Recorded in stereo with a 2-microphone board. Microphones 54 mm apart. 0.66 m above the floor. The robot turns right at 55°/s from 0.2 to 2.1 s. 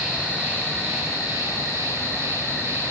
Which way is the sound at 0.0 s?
160° right.